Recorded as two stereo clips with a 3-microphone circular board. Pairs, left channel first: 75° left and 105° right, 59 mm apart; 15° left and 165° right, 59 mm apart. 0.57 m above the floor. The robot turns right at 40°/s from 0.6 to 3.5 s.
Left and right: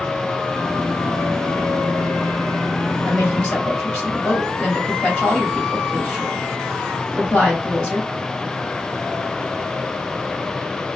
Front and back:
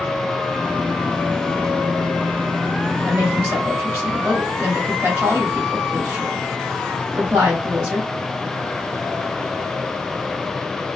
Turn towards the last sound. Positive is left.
turn(degrees=145)